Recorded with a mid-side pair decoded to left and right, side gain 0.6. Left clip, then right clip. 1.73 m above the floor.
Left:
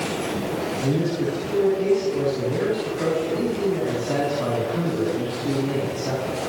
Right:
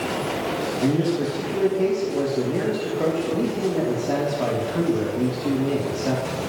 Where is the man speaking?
30° right, 3.5 m.